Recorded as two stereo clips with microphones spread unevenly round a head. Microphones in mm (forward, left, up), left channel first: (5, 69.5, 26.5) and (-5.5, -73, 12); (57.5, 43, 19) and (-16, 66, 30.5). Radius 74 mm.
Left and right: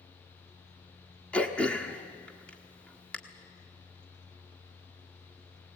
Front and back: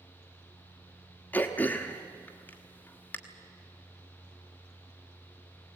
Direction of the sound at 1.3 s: 30° left.